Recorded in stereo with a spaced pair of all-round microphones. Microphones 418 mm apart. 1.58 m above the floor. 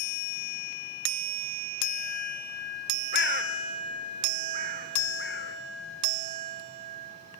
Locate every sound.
3.1 s a bird: 25° left (ahead or behind), 1.6 m